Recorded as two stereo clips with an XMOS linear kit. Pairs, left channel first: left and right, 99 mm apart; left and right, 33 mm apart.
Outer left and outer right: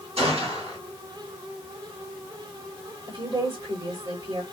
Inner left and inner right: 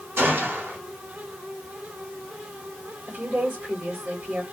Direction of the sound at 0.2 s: 80° right.